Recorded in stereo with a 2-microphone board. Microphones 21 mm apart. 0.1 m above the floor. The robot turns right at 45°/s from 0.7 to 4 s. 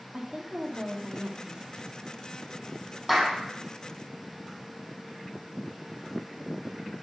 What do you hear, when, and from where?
0.1 s a woman speaking: 145° right, 3 m; by 1.9 s 95° right, 3 m
3.1 s a clap: 10° right (ahead or behind), 3.5 m; by 3.3 s centre (ahead or behind), 3.5 m